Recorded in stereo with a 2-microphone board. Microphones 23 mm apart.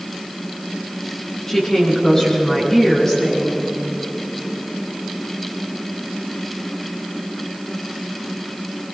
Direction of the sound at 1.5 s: 20° left (ahead or behind).